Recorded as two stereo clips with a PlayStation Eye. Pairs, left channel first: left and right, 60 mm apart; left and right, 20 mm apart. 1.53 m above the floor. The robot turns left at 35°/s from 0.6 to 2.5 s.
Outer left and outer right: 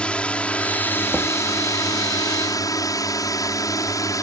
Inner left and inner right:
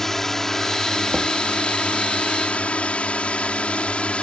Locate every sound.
0.0 s a drone: 20° left (ahead or behind); by 4.2 s 65° left (ahead or behind)
1.1 s knocking: 25° right (ahead or behind); by 1.4 s 35° right (ahead or behind)